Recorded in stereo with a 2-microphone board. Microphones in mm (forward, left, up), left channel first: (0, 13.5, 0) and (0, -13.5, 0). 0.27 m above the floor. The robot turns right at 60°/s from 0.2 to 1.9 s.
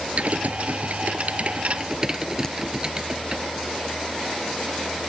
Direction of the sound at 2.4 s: 20° left (ahead or behind).